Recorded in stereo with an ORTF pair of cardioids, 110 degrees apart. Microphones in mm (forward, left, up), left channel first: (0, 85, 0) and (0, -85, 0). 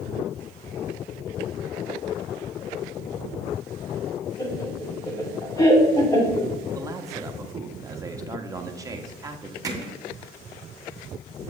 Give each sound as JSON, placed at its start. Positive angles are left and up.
{"t": 4.4, "sound": "laughter", "azimuth_deg": 20, "distance_m": 3.0}
{"t": 6.7, "sound": "a man speaking", "azimuth_deg": -20, "distance_m": 1.3}
{"t": 9.6, "sound": "hammering", "azimuth_deg": -25, "distance_m": 2.0}